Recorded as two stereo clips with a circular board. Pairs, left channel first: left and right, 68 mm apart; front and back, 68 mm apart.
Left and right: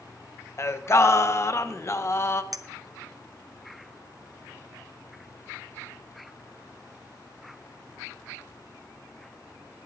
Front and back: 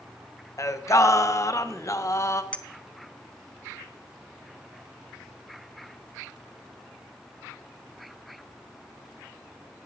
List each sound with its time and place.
0.6 s singing: 40° left, 0.7 m
2.5 s a clink: 70° right, 0.7 m